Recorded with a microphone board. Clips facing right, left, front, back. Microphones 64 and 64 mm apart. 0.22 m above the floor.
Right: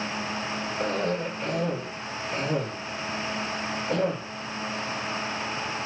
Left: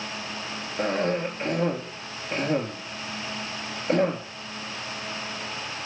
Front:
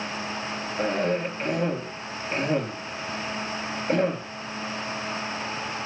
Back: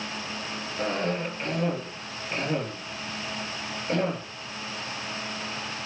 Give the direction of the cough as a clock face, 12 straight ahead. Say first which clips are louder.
Left 3 dB, front 3 dB; 10 o'clock.